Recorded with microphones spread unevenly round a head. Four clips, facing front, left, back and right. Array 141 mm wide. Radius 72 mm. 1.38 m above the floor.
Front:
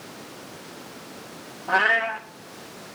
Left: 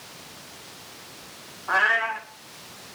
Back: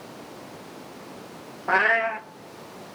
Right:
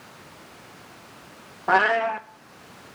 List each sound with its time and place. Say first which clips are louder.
1.7 s a cat meowing: right 4 dB, even; 95° right, 0.9 m